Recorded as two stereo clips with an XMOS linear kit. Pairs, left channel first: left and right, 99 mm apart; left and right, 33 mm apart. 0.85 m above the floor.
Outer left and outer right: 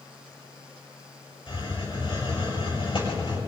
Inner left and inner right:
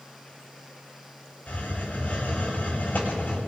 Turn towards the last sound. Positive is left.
turn(degrees=55)  # may be behind; listen again after turning